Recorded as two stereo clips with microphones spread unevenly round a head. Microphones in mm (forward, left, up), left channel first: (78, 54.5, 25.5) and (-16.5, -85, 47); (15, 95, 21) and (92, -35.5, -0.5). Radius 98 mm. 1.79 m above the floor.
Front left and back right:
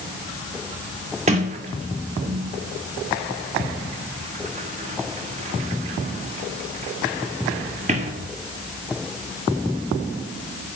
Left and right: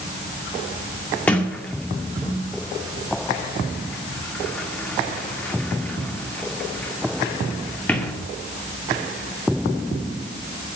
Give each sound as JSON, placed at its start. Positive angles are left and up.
{"t": 1.3, "sound": "a sliding door", "azimuth_deg": -165, "distance_m": 1.8}